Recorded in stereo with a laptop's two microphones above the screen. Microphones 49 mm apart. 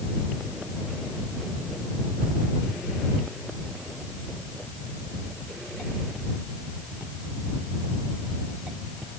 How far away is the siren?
I don't hear a siren.